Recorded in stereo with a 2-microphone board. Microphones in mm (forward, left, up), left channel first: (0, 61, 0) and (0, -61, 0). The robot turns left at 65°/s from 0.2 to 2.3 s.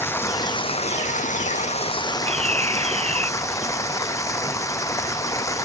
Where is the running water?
160° left; by 5.7 s 25° left.